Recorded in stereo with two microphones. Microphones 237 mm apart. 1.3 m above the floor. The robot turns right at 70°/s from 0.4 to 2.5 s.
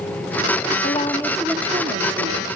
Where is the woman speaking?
145° left, 2.5 m; by 2.5 s 100° right, 2.5 m.